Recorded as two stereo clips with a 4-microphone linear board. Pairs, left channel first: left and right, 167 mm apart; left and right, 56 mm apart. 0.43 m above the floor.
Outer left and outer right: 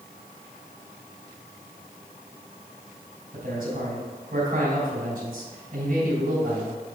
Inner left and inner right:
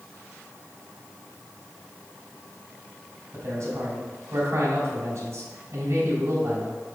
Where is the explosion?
No explosion in this recording.